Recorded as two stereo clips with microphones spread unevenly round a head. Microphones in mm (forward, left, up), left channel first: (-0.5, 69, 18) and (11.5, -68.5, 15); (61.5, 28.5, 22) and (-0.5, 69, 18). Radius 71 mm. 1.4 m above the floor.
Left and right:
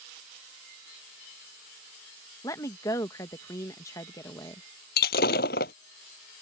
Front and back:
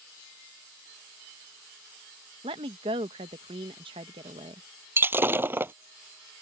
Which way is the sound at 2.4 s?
165° left.